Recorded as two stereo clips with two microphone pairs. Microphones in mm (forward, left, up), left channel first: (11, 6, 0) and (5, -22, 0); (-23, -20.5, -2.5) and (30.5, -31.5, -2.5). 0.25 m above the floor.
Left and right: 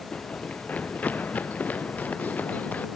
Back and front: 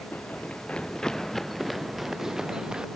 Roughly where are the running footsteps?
Behind left.